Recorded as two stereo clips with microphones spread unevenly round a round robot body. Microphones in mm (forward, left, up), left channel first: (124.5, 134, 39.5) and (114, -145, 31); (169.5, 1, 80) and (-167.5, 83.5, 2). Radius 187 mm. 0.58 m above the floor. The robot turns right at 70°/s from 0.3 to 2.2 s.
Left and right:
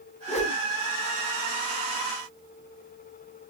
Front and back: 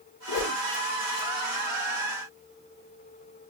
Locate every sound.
0.3 s a whoosh: 35° left, 1.0 m; by 0.6 s 55° left, 1.0 m